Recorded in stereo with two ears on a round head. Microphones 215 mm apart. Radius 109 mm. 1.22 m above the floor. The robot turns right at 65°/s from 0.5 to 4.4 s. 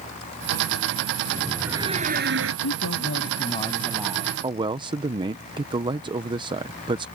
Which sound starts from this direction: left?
A man speaking, at 2.6 s.